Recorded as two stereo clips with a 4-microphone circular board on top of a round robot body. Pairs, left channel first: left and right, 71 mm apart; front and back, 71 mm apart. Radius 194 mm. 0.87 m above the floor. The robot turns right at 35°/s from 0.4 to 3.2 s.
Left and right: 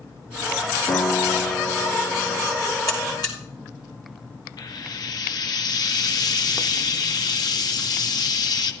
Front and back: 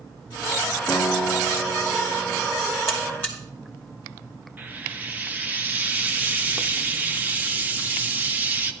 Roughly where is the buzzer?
Ahead left.